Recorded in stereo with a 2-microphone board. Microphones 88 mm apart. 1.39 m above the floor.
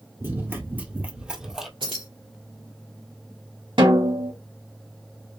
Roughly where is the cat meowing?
No cat meowing in this recording.